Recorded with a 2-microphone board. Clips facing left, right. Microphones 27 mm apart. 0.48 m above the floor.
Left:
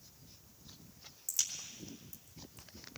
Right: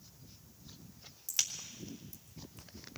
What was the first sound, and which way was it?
A crack, 40° right (ahead or behind).